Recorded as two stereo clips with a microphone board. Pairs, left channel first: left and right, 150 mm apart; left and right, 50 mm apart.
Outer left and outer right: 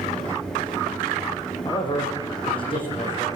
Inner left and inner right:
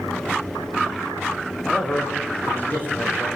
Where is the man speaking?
30° left (ahead or behind), 6.5 m; by 3.3 s 35° left (ahead or behind), 8 m.